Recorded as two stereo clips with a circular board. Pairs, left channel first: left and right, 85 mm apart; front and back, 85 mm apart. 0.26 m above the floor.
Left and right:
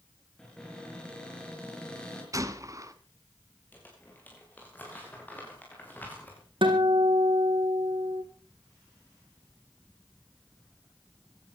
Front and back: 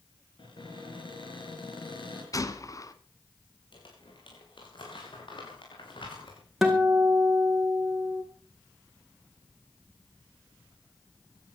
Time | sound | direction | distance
0.4 | a cupboard door | 10° left | 5 m
2.3 | a gunshot | 45° right | 1.3 m
3.7 | crumpling | 20° left | 6 m
6.6 | a guitar | 95° right | 3.5 m